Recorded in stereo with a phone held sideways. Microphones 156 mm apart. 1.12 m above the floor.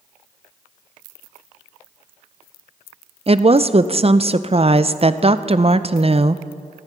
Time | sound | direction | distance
3.3 | a woman speaking | 40° right (ahead or behind) | 0.5 m